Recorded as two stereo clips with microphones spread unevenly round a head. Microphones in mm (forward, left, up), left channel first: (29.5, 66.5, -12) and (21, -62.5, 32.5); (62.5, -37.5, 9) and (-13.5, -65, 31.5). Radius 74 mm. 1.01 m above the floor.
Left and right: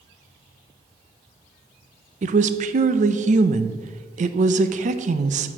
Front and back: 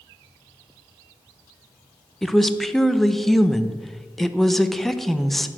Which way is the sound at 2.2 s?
60° right.